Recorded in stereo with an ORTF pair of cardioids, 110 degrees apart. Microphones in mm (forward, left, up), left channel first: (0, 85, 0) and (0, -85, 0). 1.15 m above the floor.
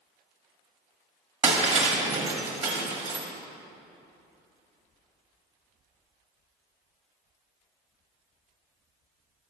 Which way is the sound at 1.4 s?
35° right.